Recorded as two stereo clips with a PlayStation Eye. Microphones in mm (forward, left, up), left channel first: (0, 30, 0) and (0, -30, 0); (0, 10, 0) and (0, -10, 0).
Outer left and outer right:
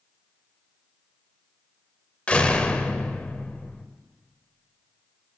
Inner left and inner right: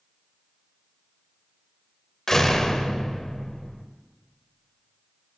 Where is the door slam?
20° left (ahead or behind), 0.8 m.